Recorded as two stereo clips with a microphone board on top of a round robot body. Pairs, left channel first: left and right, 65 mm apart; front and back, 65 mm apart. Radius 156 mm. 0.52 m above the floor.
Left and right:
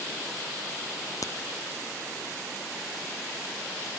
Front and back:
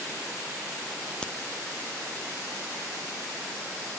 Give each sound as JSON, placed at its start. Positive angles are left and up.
{"t": 1.2, "sound": "a crack", "azimuth_deg": 75, "distance_m": 0.8}